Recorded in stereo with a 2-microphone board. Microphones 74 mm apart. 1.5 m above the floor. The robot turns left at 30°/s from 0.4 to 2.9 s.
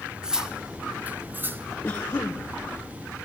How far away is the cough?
About 0.9 m.